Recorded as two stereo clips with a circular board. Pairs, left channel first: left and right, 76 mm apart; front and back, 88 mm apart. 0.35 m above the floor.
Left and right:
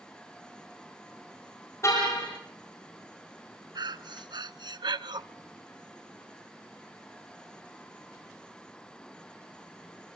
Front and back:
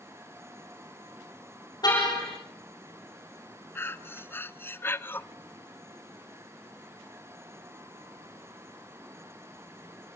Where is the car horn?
40° left, 9 m.